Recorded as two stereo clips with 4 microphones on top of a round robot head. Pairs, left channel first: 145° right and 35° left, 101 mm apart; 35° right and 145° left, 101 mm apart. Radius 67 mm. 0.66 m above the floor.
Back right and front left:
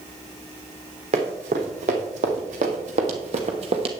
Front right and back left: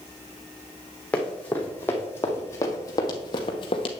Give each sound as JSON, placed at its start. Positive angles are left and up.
{"t": 1.1, "sound": "running footsteps", "azimuth_deg": 45, "distance_m": 2.5}